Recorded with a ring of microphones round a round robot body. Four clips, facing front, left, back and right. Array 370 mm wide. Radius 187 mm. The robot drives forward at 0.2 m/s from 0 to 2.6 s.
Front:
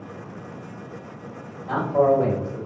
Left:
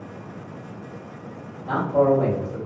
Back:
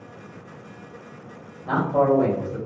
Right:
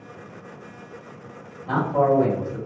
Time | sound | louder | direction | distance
1.7 | a man speaking | left 1 dB, front 1 dB | 165° left | 1.6 m